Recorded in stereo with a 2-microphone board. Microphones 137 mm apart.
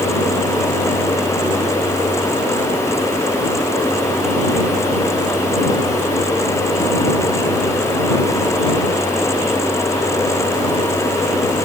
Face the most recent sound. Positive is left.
No sound to turn to.